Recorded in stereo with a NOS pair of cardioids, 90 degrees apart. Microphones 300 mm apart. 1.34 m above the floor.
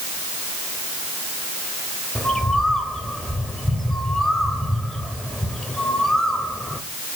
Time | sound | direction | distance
2.1 | a bird | straight ahead | 3 m